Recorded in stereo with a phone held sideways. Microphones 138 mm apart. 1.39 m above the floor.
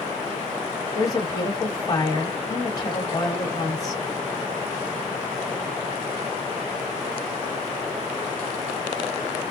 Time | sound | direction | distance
0.9 | a woman speaking | 25° left (ahead or behind) | 1.7 m